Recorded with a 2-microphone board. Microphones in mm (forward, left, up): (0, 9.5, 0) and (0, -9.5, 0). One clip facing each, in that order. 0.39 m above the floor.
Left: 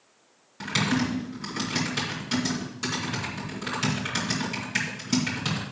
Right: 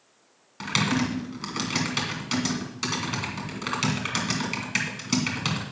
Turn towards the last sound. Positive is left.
turn(degrees=-35)  # may be behind; listen again after turning